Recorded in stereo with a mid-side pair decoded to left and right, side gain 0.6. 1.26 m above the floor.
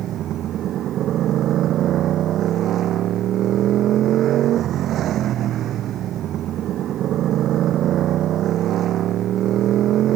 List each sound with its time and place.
0.0 s a motorcycle: 55° right